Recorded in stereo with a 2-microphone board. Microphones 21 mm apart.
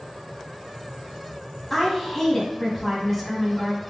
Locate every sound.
1.7 s a woman speaking: 10° left (ahead or behind), 1.2 m